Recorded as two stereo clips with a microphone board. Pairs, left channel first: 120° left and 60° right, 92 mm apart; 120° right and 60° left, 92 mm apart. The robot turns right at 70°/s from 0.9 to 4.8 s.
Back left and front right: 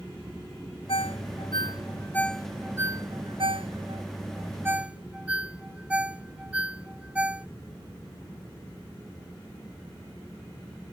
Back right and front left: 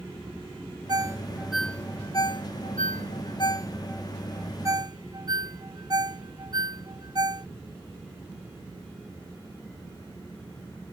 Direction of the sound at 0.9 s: 105° left.